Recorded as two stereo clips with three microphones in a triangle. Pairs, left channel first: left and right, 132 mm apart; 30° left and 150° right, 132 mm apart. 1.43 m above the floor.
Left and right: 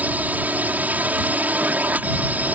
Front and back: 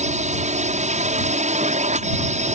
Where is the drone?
170° right.